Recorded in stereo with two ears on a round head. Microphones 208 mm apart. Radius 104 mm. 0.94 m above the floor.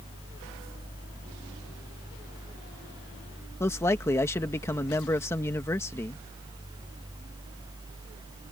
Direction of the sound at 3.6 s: 10° left (ahead or behind).